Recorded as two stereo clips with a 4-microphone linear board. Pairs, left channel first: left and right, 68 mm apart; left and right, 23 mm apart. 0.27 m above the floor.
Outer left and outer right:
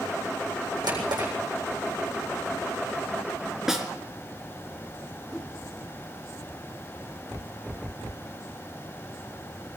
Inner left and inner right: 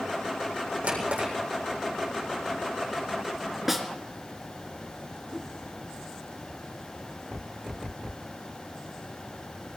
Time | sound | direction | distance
0.8 | a drawer | 85° right | 7.5 m
3.7 | a snare drum | 5° right (ahead or behind) | 3 m
5.3 | a whoosh | 5° left (ahead or behind) | 4.5 m